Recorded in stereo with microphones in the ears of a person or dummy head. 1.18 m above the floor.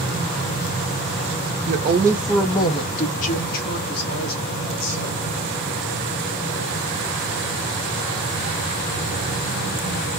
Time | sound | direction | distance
1.7 | a woman speaking | 45° right (ahead or behind) | 0.6 m